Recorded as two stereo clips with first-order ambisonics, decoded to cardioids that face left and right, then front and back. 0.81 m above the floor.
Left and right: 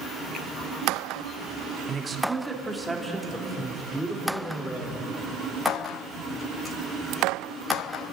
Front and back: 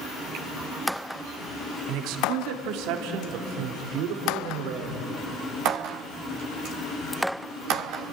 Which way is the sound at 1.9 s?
160° right.